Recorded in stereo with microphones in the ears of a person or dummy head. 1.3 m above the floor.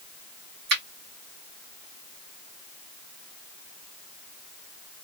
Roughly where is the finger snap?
Right.